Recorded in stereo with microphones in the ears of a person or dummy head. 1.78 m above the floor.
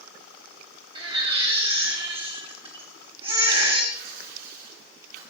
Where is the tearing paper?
60° right (ahead or behind), 5.5 m.